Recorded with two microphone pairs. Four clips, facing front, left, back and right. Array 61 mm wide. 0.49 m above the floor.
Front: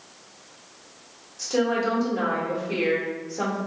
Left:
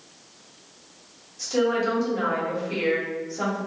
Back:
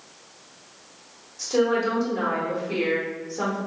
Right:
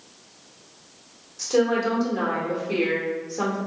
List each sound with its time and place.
1.4 s a woman speaking: 110° right, 1.4 m